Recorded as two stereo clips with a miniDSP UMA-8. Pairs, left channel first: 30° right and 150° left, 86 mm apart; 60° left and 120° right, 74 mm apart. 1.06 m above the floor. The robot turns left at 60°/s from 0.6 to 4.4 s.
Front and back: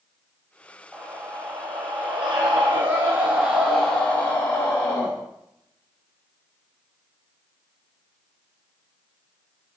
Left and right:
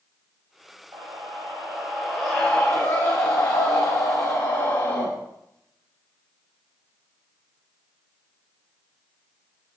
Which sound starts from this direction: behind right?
A scream, at 0.9 s.